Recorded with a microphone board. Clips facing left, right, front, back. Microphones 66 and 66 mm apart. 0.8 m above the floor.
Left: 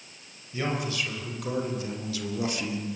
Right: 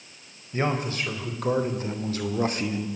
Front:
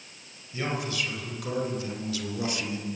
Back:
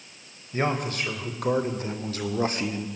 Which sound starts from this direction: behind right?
A man speaking, at 0.5 s.